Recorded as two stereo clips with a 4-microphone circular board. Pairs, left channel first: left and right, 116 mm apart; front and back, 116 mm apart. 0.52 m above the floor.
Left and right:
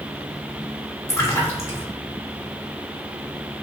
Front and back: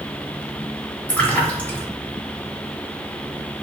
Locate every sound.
1.1 s a splash: 60° left, 0.7 m